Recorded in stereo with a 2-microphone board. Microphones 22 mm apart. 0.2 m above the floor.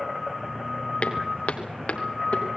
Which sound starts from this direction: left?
Footsteps, at 1.0 s.